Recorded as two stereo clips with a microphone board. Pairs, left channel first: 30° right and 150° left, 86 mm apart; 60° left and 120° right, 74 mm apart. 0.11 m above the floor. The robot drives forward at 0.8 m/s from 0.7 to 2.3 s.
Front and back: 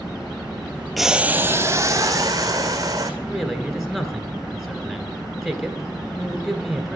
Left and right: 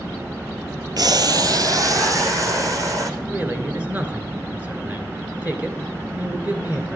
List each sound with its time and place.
1.0 s boiling: 120° right, 0.5 m; by 3.1 s 165° right, 1.4 m
3.2 s a man speaking: 120° right, 1.1 m